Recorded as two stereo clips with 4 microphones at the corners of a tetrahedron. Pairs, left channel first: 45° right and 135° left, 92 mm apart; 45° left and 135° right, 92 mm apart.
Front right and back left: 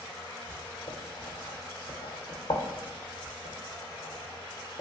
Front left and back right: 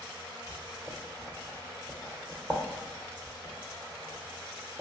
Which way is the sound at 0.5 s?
70° right.